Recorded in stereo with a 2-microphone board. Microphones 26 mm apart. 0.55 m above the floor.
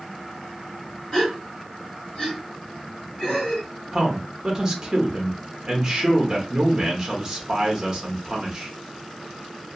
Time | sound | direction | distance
1.1 | a gasp | 40° left (ahead or behind) | 1.6 m
3.9 | a man speaking | 15° right (ahead or behind) | 0.7 m